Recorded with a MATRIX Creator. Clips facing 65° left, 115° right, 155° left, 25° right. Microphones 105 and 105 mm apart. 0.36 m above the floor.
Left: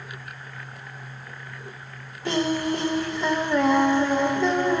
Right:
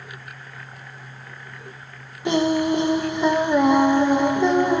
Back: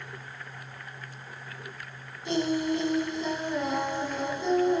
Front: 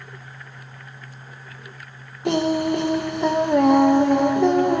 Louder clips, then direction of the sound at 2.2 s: Right 5 dB, front 7 dB; 40° right.